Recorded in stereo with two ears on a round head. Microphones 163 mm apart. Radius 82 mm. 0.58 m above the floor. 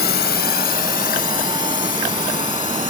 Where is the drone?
60° left (ahead or behind); by 2.9 s 45° left (ahead or behind).